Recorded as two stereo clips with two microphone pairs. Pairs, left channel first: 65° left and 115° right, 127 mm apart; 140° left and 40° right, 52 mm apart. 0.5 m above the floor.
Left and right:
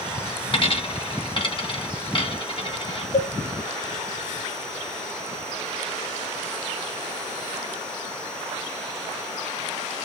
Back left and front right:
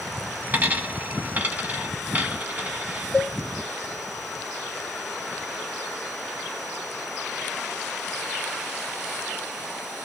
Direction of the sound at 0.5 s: 20° left.